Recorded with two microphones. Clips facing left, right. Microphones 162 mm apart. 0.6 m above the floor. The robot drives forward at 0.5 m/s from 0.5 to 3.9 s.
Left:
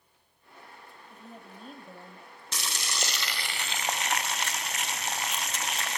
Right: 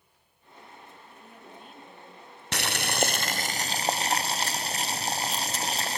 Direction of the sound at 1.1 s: 35° left (ahead or behind).